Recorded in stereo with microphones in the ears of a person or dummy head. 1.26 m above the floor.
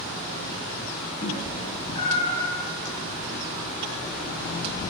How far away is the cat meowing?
About 1.6 m.